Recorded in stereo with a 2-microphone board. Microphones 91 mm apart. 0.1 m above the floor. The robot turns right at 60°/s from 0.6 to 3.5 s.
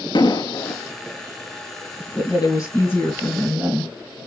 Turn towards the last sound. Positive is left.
turn(degrees=-170)